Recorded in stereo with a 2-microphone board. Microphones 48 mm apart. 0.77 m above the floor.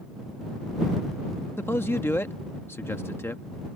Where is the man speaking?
55° left (ahead or behind).